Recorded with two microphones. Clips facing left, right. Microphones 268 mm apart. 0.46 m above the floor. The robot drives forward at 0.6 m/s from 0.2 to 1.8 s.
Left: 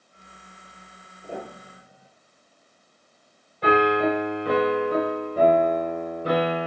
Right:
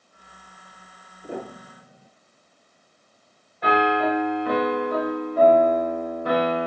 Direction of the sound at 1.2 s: 15° right (ahead or behind).